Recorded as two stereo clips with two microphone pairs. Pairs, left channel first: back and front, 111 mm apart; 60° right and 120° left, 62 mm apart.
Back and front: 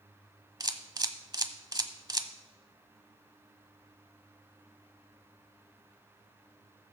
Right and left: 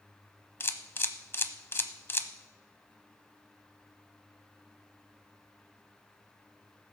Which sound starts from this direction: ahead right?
A camera shutter, at 0.6 s.